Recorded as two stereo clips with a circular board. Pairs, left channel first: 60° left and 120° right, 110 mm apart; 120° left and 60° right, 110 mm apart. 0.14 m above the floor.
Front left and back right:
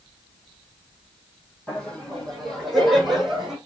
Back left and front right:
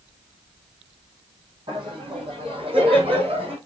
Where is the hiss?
No hiss in this recording.